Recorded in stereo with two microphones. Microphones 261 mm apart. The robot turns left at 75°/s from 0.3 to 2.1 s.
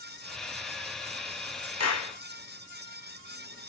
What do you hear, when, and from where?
1.8 s a clap: 70° left (ahead or behind), 1.1 m; by 2.1 s 80° left, 1.1 m